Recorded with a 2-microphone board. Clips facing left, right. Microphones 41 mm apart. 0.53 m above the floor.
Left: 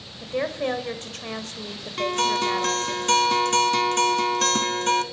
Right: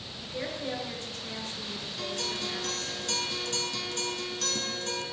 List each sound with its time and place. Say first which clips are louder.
0.2 s a woman speaking: left 9 dB; 60° left (ahead or behind), 1.8 m
2.0 s a guitar: left 13 dB; 65° left (ahead or behind), 0.9 m